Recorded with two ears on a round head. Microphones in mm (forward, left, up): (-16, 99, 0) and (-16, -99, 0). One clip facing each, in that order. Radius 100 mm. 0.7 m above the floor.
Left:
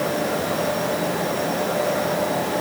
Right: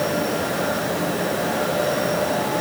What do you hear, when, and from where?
Only background noise.